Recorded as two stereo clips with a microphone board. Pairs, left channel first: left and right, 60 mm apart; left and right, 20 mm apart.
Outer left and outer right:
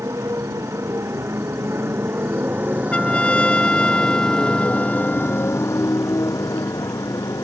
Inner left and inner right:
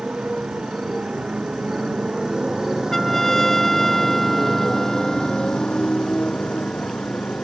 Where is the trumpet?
15° left (ahead or behind).